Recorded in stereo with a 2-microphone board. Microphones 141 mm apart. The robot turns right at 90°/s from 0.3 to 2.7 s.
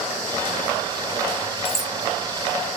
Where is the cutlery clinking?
40° left (ahead or behind); by 1.9 s 65° left (ahead or behind).